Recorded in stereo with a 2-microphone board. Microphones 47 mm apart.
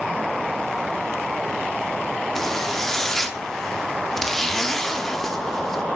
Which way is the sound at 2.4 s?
5° left (ahead or behind).